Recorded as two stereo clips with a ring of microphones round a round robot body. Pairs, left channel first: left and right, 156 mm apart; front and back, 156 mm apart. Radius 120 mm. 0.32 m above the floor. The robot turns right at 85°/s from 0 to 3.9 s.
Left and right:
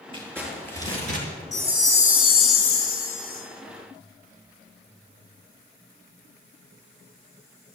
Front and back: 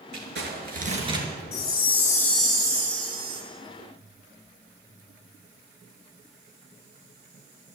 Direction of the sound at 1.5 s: 5° left.